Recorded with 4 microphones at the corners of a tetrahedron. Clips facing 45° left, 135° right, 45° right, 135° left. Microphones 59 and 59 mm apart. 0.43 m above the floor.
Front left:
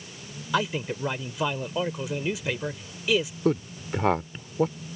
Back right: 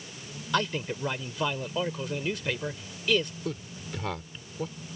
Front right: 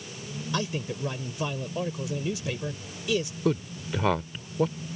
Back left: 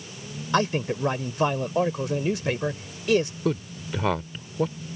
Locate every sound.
0.5 s a man speaking: 125° left
3.5 s a man speaking: 45° left